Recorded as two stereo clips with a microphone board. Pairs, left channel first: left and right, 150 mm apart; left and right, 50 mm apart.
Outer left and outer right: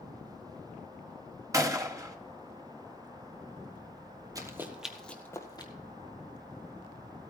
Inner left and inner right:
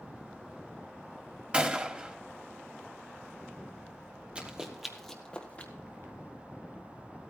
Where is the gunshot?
20° right (ahead or behind), 1.1 m.